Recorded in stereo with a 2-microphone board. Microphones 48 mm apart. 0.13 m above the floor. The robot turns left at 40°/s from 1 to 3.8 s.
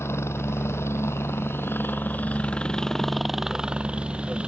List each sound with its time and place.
0.0 s a helicopter: 90° left; by 4.5 s 25° right